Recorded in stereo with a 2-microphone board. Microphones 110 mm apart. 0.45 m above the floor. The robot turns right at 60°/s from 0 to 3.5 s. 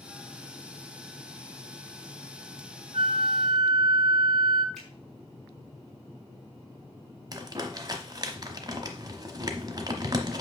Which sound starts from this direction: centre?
A finger snap, at 4.8 s.